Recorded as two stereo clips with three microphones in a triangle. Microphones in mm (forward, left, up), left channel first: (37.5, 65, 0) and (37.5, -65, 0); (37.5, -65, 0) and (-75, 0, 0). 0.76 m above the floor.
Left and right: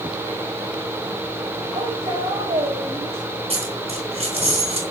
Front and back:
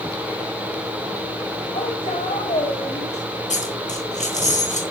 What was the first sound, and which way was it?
A woman speaking, 35° right.